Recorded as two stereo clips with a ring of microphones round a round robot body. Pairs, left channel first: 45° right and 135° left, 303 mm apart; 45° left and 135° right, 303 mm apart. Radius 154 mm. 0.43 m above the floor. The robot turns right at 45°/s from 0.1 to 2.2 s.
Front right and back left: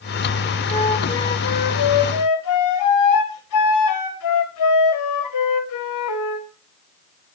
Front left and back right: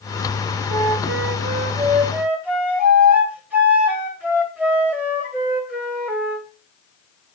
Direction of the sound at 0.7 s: 120° right.